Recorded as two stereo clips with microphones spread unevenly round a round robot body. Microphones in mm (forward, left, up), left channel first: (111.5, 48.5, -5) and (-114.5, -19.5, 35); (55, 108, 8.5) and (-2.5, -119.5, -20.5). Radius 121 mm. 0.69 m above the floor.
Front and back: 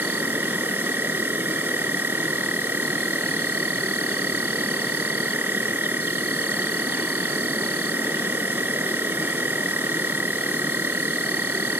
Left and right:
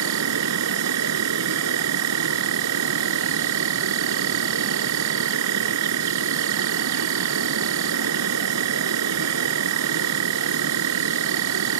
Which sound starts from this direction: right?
An insect, at 0.0 s.